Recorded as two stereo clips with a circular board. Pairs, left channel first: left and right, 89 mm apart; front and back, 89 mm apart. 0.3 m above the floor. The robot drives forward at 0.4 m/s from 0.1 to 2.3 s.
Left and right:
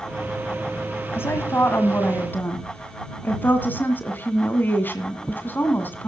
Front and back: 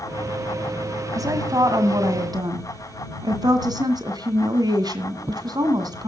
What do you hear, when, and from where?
1.1 s a woman speaking: 145° left, 1.7 m; by 6.1 s 155° left, 2 m